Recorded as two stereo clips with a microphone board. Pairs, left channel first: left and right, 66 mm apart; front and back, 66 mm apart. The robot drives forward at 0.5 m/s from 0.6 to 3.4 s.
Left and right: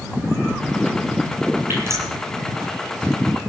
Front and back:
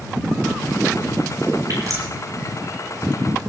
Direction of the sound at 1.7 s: 140° right.